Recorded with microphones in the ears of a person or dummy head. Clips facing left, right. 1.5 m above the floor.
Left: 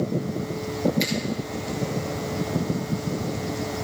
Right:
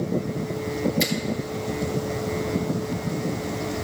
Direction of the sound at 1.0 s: 5° right (ahead or behind).